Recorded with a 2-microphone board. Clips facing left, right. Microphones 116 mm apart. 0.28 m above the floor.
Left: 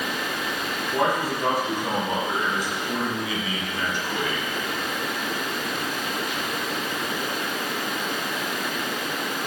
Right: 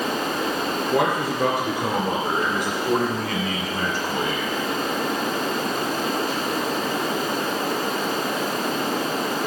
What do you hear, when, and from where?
0.9 s a man speaking: 70° right (ahead or behind), 3.5 m; by 4.5 s 25° right (ahead or behind), 1.6 m